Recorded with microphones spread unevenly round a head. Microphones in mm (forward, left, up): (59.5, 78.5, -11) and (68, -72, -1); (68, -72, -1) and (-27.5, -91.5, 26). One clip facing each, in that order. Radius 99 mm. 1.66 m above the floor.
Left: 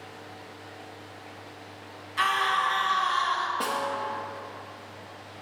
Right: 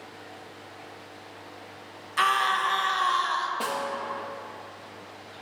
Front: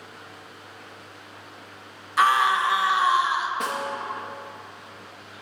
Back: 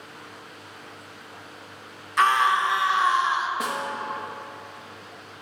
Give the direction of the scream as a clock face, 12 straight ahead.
3 o'clock.